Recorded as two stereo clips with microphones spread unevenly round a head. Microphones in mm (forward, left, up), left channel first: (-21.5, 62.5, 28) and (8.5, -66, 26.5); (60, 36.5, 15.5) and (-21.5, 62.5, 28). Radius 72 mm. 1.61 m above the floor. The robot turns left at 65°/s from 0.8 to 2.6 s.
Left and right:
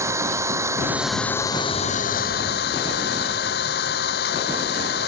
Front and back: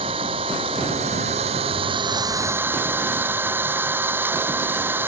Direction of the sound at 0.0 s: 145° right.